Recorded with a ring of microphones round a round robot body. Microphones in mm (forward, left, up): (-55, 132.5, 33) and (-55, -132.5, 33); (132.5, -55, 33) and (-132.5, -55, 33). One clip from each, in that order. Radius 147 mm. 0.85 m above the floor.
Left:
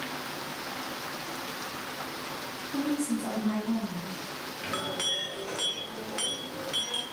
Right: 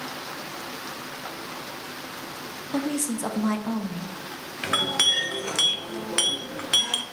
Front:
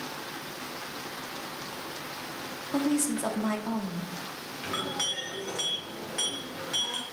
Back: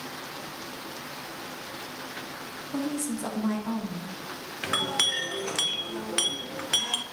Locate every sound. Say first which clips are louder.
2.7 s a woman speaking: right 3 dB, front 4 dB; 75° right, 0.6 m
4.6 s a clink: right 10 dB, back 5 dB; 135° right, 0.5 m